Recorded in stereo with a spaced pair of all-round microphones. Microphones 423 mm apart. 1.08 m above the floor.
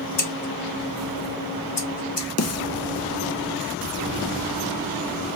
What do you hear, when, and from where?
0.2 s scissors: 70° left (ahead or behind), 0.9 m
2.4 s a snare drum: 35° left (ahead or behind), 0.6 m